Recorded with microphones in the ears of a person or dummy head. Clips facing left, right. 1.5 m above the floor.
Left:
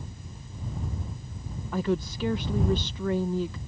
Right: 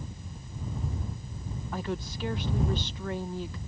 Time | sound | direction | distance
1.7 | a woman speaking | 60° left (ahead or behind) | ?